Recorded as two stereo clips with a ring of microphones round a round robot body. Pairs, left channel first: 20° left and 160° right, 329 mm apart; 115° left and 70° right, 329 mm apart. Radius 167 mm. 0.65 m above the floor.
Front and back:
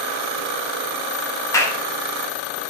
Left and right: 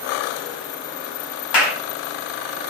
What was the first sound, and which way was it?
A clap, 105° left.